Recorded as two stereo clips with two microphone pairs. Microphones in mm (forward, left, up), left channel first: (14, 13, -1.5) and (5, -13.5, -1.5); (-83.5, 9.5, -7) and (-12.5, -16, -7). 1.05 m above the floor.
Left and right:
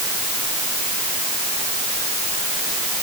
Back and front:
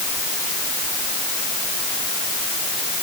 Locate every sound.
Only background noise.